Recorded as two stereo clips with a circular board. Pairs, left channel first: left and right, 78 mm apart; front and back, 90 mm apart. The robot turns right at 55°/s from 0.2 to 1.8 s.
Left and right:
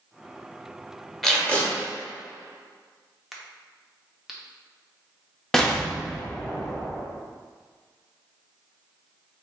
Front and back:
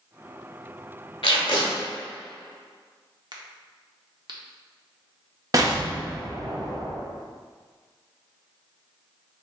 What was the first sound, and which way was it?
Tape being pulled, straight ahead.